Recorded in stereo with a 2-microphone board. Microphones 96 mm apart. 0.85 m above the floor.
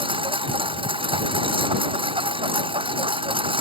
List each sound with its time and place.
0.0 s a lawn mower: 65° right (ahead or behind)